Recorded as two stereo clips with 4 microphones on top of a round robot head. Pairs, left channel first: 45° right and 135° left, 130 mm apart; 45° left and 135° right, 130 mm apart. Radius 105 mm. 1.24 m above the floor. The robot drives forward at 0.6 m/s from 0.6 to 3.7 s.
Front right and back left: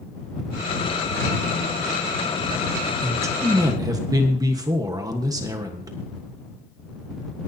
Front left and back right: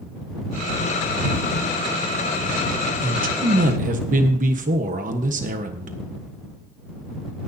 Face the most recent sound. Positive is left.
turn(degrees=-160)